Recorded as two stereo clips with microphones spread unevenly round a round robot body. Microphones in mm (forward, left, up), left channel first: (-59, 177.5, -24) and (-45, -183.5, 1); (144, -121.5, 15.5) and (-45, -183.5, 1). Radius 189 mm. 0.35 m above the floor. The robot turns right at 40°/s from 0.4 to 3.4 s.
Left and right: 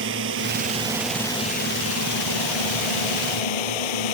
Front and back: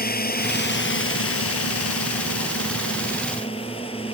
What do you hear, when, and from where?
0.0 s a drone: 25° right; by 4.1 s 95° left